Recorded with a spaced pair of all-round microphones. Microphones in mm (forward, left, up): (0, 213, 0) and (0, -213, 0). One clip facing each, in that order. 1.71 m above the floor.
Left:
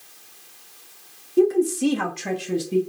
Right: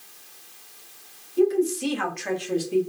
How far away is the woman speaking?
About 0.8 m.